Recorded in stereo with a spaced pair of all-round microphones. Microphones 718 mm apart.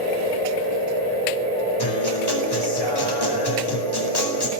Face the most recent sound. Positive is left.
turn(degrees=30)  # may be behind; listen again after turning